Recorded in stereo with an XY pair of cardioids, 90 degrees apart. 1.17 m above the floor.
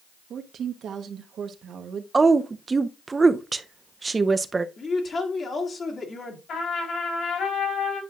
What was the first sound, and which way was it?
A woman speaking, 70° right.